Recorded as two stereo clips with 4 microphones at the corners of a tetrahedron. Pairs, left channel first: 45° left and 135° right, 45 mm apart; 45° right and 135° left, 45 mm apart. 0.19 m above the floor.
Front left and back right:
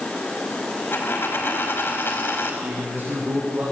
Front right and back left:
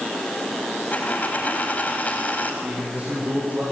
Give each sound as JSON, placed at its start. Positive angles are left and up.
{"t": 0.9, "sound": "a dropped coin", "azimuth_deg": 10, "distance_m": 5.0}
{"t": 2.6, "sound": "a man speaking", "azimuth_deg": -175, "distance_m": 8.0}